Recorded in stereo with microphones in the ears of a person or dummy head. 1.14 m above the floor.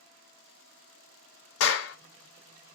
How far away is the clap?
About 1.2 m.